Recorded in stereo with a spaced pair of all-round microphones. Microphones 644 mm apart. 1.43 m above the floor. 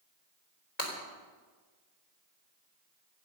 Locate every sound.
0.8 s breaking glass: 85° left, 4 m